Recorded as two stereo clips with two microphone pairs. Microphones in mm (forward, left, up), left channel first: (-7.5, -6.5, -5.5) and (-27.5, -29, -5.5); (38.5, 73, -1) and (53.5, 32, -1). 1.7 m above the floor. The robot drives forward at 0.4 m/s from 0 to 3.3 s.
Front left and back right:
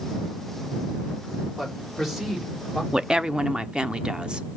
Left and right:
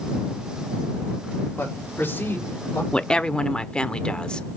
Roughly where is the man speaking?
Behind left.